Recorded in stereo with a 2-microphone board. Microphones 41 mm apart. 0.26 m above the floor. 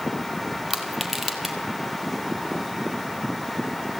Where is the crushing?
5° right (ahead or behind), 3 m.